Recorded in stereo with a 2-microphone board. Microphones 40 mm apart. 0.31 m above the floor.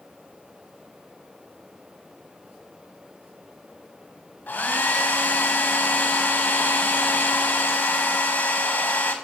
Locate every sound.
4.5 s a hair dryer: 55° left (ahead or behind), 0.7 m